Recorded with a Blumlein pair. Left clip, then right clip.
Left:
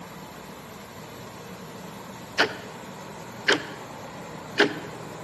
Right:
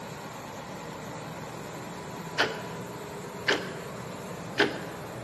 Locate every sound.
2.4 s ticking: 15° left, 0.5 m